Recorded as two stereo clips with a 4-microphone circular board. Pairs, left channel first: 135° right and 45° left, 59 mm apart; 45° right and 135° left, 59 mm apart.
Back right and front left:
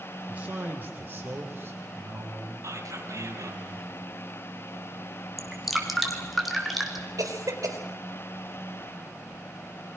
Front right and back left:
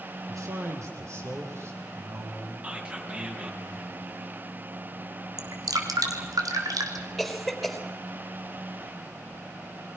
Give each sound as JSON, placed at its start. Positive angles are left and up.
{"t": 0.3, "sound": "a man speaking", "azimuth_deg": 110, "distance_m": 4.0}
{"t": 2.6, "sound": "whispering", "azimuth_deg": 65, "distance_m": 4.0}
{"t": 5.4, "sound": "dripping", "azimuth_deg": 135, "distance_m": 2.5}
{"t": 7.2, "sound": "a cough", "azimuth_deg": 45, "distance_m": 4.0}